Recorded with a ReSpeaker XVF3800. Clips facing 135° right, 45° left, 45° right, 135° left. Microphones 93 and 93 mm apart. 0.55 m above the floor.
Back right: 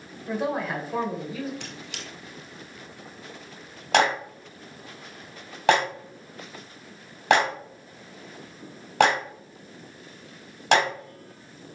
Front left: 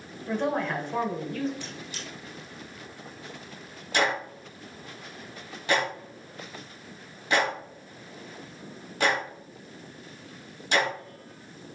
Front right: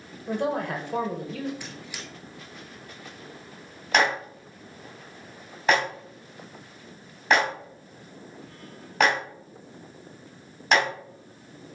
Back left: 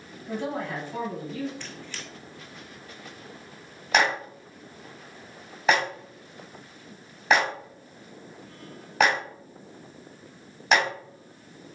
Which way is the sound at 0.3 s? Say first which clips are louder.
Even, front right 4 dB; 50° right.